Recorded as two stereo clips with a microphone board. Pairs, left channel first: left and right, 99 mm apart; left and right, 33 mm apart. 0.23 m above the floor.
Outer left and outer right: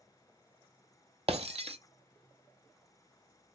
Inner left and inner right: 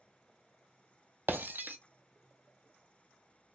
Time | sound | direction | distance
1.3 | breaking glass | 75° right (ahead or behind) | 0.5 m